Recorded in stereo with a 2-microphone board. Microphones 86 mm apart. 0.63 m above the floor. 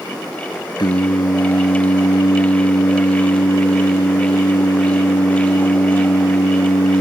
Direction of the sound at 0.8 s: 60° left (ahead or behind).